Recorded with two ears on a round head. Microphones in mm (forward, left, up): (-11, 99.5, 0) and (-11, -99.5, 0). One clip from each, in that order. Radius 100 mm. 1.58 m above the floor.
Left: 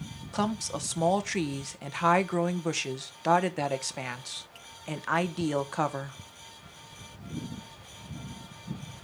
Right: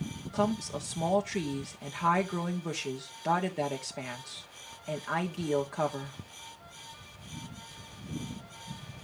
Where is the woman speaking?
30° left (ahead or behind), 1.2 m.